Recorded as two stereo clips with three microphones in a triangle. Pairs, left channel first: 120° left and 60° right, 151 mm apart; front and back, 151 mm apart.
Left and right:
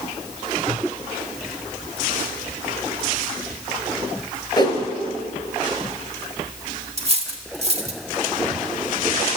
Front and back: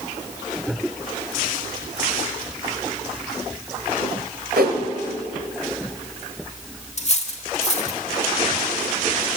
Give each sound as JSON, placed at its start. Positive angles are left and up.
{"t": 4.6, "sound": "a whoosh", "azimuth_deg": 180, "distance_m": 1.8}
{"t": 7.0, "sound": "cutlery clinking", "azimuth_deg": -25, "distance_m": 1.0}